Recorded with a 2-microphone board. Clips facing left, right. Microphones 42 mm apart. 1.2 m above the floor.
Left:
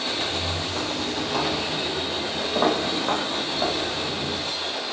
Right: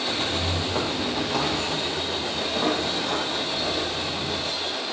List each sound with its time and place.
0.1 s footsteps: 50° right (ahead or behind), 2.0 m; by 4.4 s 55° left (ahead or behind), 4.5 m